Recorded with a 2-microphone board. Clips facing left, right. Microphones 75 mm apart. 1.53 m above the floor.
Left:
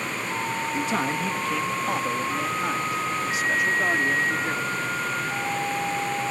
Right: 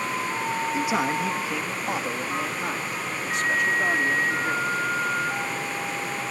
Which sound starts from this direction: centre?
A man speaking, at 0.7 s.